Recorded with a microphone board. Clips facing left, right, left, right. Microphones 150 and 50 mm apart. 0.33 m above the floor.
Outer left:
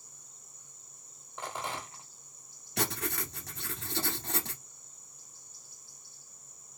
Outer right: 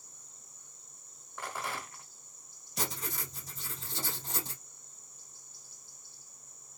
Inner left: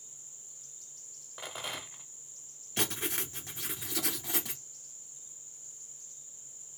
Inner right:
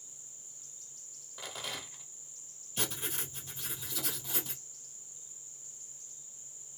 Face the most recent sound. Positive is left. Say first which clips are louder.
# outer left 5 dB, inner left 4 dB
turn(degrees=80)